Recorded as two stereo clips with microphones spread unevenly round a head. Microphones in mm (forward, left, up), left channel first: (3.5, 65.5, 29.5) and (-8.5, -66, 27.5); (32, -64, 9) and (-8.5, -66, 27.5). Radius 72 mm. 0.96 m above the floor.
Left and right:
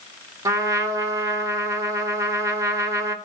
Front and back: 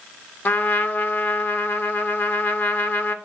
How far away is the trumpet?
About 0.8 m.